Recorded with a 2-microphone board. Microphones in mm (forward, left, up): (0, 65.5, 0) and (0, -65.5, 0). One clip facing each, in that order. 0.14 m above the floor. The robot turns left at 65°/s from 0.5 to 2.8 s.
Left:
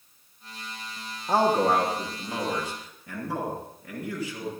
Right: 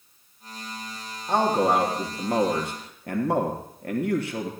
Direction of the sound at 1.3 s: 10° left.